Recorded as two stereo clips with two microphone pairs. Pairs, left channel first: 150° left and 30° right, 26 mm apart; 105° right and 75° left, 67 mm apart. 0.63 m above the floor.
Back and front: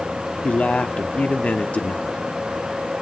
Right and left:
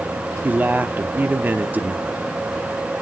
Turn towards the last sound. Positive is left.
turn(degrees=135)